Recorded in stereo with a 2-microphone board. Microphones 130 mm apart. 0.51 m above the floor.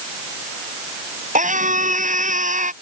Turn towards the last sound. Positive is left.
turn(degrees=-70)  # may be behind; listen again after turning